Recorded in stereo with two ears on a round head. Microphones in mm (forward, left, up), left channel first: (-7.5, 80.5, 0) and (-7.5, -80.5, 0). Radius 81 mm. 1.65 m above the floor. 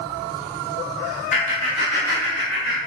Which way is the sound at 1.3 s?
40° left (ahead or behind).